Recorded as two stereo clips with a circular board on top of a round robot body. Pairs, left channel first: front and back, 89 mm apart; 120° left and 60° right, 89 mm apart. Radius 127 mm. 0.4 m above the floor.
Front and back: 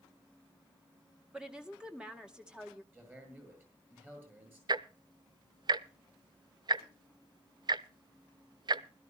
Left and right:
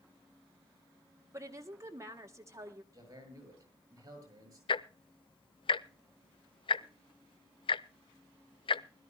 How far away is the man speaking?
About 8 m.